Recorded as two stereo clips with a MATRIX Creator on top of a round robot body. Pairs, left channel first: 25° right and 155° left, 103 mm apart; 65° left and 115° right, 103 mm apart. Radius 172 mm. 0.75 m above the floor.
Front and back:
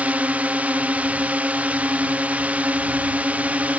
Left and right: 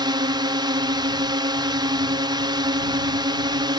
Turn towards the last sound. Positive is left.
turn(degrees=-130)